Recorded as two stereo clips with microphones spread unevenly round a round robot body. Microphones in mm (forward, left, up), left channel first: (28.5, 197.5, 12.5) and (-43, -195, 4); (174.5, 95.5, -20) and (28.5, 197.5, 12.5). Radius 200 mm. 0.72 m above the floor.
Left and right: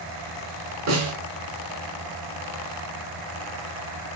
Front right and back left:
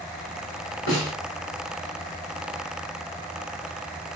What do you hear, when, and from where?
0.9 s a snare drum: 45° right, 0.9 m